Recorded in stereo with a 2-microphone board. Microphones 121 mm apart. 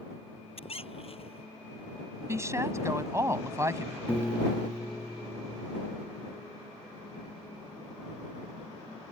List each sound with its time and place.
0.6 s a squeak: 50° left (ahead or behind)
2.3 s a woman speaking: 25° right (ahead or behind)
4.1 s a piano: 10° left (ahead or behind)